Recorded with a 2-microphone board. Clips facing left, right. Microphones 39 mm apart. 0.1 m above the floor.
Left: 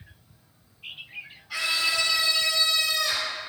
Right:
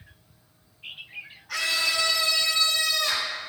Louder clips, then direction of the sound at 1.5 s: Even; 70° right (ahead or behind).